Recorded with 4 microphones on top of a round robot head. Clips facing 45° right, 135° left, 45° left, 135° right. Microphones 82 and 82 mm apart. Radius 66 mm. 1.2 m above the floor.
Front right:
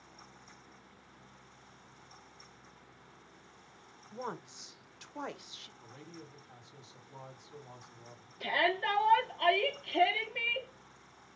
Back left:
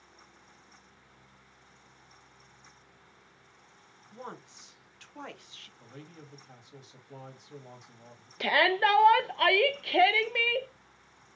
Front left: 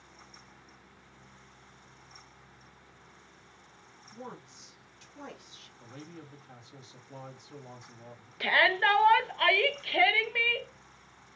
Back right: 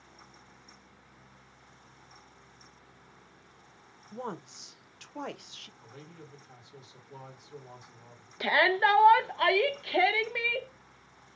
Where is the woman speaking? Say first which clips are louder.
Front right 3 dB, back right 6 dB; 115° right, 0.8 m.